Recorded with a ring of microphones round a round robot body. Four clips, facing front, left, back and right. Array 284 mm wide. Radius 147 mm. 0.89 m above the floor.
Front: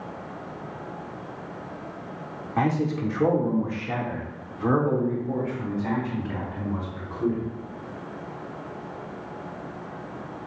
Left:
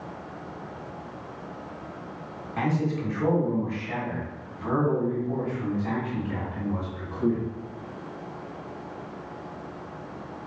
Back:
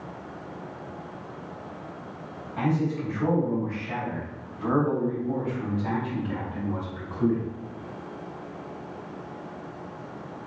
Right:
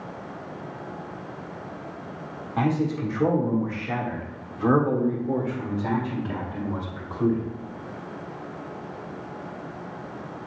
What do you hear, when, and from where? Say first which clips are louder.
2.6 s a man speaking: right 3 dB, front 2 dB; 20° right, 2 m; by 7.5 s 95° right, 3.5 m